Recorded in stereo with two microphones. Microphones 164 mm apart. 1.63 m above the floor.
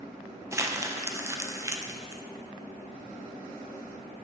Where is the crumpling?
20° right (ahead or behind), 0.6 m.